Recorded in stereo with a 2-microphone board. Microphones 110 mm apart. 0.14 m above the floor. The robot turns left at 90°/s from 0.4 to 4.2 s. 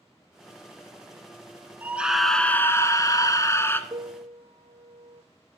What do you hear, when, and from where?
1.8 s a scream: 145° right, 1.2 m; by 3.8 s 35° left, 1.2 m
3.9 s a piano: 45° right (ahead or behind), 1.0 m; by 5.2 s 65° right (ahead or behind), 1.0 m